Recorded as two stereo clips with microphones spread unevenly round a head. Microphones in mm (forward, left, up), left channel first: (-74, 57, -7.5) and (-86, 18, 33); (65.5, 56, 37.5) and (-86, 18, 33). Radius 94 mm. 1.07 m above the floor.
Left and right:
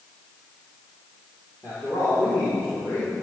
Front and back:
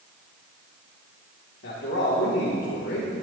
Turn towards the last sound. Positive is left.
turn(degrees=15)